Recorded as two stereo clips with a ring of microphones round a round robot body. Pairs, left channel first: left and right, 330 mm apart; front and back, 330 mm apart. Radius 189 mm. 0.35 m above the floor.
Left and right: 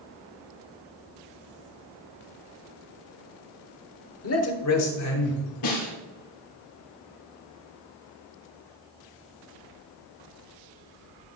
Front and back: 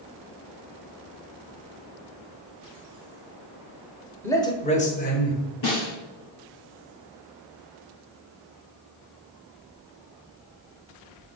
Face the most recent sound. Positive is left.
turn(degrees=55)